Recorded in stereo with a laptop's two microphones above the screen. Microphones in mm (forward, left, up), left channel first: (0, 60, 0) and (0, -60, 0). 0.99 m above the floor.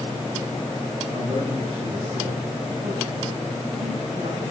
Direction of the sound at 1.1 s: 80° right.